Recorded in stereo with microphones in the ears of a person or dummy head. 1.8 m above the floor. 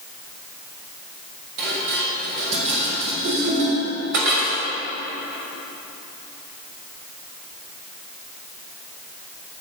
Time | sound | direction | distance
1.6 | dishes clattering | 65° right (ahead or behind) | 3.5 m